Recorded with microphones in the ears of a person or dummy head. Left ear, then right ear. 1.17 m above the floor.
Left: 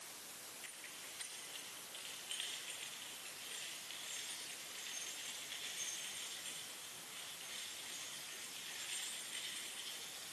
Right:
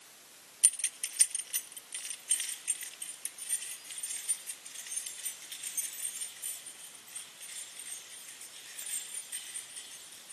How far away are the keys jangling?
About 0.7 m.